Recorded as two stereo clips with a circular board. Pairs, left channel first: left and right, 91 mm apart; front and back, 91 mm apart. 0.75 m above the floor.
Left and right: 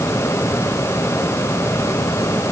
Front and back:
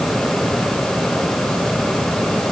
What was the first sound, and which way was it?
Only background noise.